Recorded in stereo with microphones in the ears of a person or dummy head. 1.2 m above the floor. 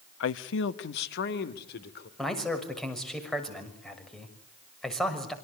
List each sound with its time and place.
0.2 s a man speaking: 85° left, 1.3 m; by 2.1 s 65° left (ahead or behind), 4 m
2.2 s a man speaking: 5° left (ahead or behind), 6.5 m